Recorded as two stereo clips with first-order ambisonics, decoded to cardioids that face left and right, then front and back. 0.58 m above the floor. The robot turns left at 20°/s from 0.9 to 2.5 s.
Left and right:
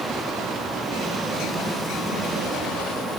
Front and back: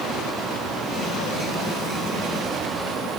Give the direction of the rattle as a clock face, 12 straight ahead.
No rattle in this recording.